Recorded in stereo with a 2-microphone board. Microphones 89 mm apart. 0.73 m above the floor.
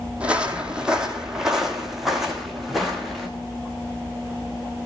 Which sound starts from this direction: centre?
Footsteps, at 0.2 s.